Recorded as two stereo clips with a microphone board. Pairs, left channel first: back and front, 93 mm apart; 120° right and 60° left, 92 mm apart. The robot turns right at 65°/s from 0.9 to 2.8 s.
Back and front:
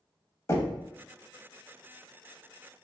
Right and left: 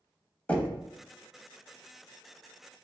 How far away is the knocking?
About 0.7 m.